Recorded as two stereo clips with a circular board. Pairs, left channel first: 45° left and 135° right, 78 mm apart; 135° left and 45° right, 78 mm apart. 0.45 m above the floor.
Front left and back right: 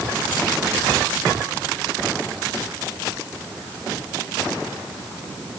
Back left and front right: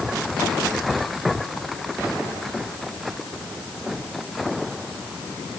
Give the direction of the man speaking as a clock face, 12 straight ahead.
No man speaking in this recording.